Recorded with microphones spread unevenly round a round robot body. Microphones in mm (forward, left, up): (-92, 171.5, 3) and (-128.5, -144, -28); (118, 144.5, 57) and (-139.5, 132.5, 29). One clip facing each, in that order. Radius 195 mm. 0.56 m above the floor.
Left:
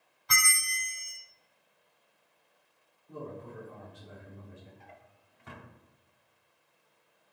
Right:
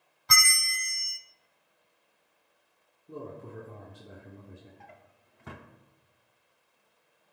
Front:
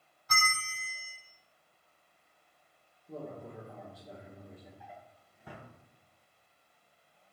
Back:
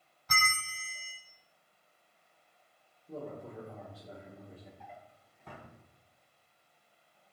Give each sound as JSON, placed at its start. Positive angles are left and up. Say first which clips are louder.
{"t": 0.3, "sound": "a bell", "louder": "right 2 dB, front 1 dB", "azimuth_deg": -145, "distance_m": 0.6}
{"t": 3.1, "sound": "a man speaking", "louder": "right 1 dB, back 1 dB", "azimuth_deg": -90, "distance_m": 1.3}
{"t": 4.8, "sound": "a drawer", "louder": "right 1 dB, even", "azimuth_deg": -85, "distance_m": 0.6}